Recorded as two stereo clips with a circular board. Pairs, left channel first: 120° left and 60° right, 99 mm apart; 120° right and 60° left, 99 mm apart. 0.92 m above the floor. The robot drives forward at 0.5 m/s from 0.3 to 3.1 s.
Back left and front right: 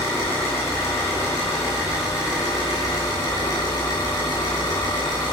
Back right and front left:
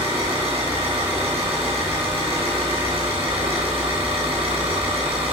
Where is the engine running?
55° left, 5.5 m; by 5.3 s 70° left, 5 m.